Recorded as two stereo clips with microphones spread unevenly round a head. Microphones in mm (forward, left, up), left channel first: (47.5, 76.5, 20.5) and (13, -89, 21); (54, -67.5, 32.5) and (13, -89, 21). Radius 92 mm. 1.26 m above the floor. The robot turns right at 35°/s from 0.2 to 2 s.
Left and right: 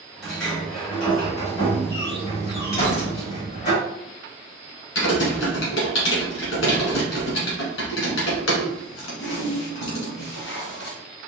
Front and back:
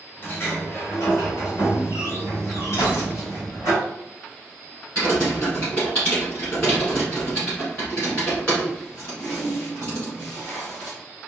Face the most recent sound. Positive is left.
turn(degrees=100)